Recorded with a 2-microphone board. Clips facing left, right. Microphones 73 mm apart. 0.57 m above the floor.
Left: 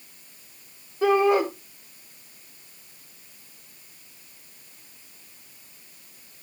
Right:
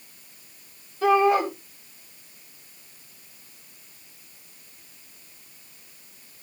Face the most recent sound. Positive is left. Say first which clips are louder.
# even
turn(degrees=30)  # may be behind; listen again after turning